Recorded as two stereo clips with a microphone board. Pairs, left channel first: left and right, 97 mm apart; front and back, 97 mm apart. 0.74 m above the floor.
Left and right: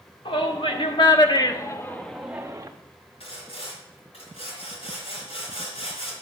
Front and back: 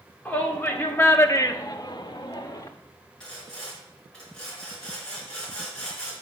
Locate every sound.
0.2 s a shout: 75° left, 1.6 m; by 2.7 s 35° right, 0.8 m
3.2 s sawing: 80° left, 4.5 m